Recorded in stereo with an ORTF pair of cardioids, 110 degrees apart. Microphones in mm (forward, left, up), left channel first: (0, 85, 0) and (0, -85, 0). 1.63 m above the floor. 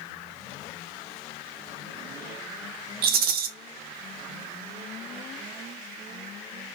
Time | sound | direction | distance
3.0 | a rattle | 65° right | 0.6 m